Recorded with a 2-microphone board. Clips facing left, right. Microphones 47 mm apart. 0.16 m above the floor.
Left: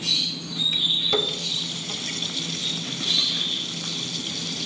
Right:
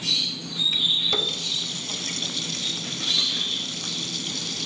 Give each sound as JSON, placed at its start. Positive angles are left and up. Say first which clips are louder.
{"t": 1.1, "sound": "a running tap", "louder": "left 2 dB", "side_deg": 5, "distance_m": 1.0}